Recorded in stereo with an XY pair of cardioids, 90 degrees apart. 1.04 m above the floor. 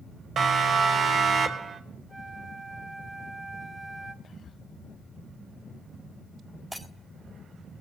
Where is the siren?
60° right, 5 m; by 1.8 s 55° right, 4 m.